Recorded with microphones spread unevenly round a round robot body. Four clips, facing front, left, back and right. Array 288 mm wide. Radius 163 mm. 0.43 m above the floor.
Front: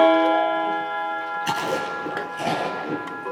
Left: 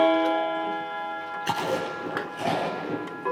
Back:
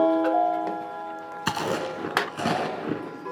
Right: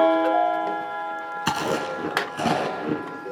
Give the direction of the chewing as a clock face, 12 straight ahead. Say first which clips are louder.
Right 2 dB, even; 4 o'clock.